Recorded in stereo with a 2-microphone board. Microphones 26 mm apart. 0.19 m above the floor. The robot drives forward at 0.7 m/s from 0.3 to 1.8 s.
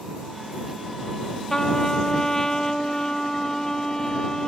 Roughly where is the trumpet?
Left.